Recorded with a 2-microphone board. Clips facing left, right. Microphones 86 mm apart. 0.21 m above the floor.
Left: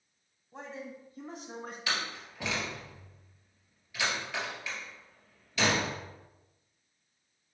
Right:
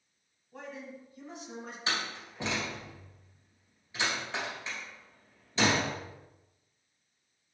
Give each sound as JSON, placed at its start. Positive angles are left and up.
{"t": 0.5, "sound": "a man speaking", "side_deg": 20, "distance_m": 1.4}
{"t": 1.9, "sound": "a door slam", "side_deg": -30, "distance_m": 3.0}